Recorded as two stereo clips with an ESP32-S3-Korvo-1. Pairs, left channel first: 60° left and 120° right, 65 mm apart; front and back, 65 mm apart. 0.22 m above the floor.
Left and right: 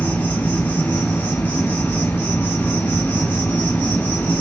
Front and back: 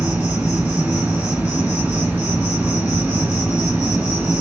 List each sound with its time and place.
0.0 s an insect: 115° left, 1.5 m